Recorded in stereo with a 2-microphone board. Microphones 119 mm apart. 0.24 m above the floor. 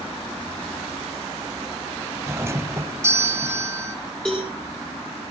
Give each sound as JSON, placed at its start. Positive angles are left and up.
{"t": 2.3, "sound": "a doorbell", "side_deg": -25, "distance_m": 1.4}
{"t": 4.2, "sound": "a cowbell", "side_deg": 10, "distance_m": 5.5}